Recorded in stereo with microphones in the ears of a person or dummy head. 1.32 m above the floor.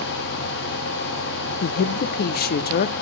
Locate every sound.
0.0 s a fan: 65° left (ahead or behind), 1.4 m
1.6 s a woman speaking: 50° left (ahead or behind), 0.5 m